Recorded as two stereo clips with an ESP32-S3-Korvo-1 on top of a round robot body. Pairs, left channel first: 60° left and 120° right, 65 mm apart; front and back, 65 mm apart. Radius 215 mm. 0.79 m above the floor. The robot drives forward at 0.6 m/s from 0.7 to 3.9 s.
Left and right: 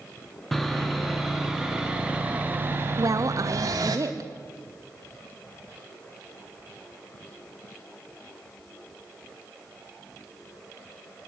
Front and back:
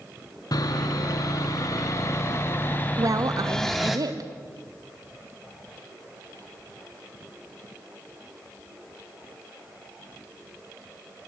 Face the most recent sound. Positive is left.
turn(degrees=-155)